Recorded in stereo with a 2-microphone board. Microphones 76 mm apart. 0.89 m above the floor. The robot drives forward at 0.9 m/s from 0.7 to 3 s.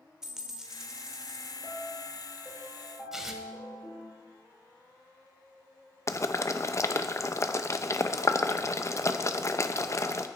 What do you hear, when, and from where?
0.2 s a dropped coin: 5° right (ahead or behind), 1.5 m
1.6 s a piano: 30° left (ahead or behind), 2.5 m; by 4.1 s 20° left (ahead or behind), 3.5 m
3.1 s tearing paper: 5° right (ahead or behind), 1.3 m
6.1 s boiling: 40° left (ahead or behind), 0.7 m